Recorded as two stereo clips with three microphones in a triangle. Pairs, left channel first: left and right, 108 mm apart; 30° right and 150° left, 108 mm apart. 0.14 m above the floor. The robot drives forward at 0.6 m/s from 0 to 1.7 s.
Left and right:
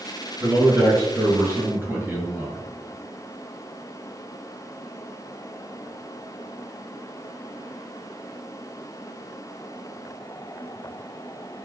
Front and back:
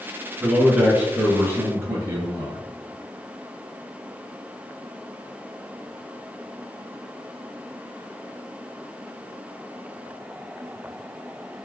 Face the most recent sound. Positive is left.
turn(degrees=-155)